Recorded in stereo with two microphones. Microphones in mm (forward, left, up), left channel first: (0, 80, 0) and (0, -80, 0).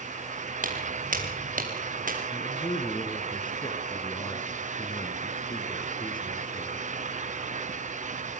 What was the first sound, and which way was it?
Footsteps, 55° right (ahead or behind).